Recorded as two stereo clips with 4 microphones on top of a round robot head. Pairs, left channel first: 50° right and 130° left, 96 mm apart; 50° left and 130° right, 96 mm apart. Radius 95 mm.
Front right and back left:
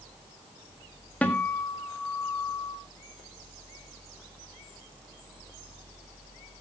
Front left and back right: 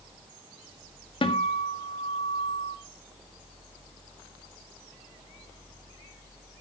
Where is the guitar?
25° left, 1.8 m.